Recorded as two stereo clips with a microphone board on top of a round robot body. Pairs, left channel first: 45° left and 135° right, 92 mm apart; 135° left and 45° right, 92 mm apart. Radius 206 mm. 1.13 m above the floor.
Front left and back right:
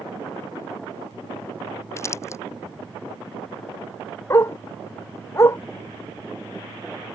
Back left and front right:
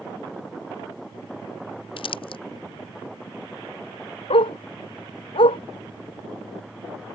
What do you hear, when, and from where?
2.0 s crumpling: 105° left
4.3 s a dog barking: 105° left